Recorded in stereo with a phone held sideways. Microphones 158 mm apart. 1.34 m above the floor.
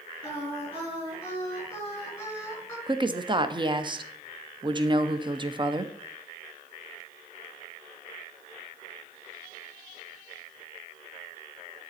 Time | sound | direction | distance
0.2 | singing | 20° left (ahead or behind) | 5 m
2.9 | a woman speaking | 30° right (ahead or behind) | 0.6 m